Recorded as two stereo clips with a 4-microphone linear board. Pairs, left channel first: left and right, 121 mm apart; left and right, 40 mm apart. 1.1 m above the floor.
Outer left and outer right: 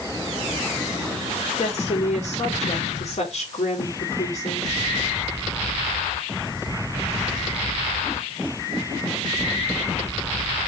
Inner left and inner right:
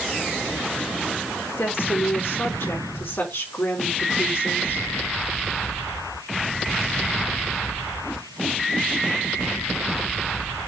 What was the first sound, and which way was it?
A woman speaking, 65° left (ahead or behind).